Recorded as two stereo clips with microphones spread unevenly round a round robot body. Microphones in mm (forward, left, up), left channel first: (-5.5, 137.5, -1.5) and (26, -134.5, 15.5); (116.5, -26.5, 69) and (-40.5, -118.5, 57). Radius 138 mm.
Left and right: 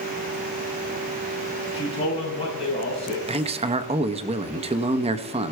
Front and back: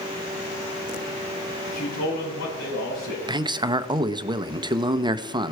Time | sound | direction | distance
1.7 | a man speaking | 25° left | 8.5 m
3.3 | a man speaking | 135° right | 0.7 m